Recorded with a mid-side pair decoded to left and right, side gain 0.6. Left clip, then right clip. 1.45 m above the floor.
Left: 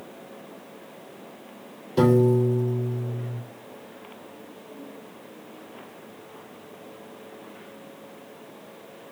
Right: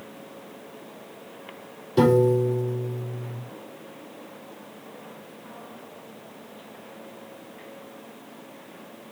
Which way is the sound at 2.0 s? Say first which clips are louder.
Right 1 dB; 10° right.